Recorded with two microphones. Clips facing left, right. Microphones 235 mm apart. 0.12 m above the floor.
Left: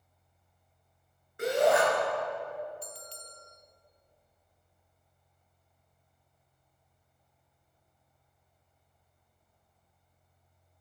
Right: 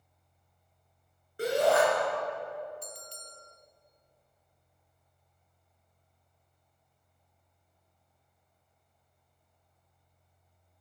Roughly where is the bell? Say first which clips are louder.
Even; right.